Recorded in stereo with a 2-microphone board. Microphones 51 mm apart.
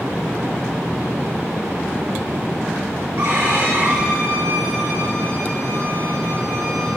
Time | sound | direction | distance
3.2 | a violin | 50° right (ahead or behind) | 3.5 m